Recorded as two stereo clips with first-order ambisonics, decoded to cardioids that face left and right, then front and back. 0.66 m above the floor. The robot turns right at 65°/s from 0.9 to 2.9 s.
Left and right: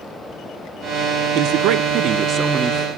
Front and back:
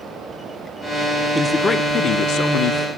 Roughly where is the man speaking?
Right.